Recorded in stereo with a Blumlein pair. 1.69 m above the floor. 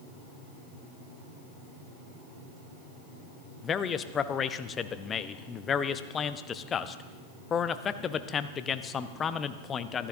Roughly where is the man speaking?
Ahead left.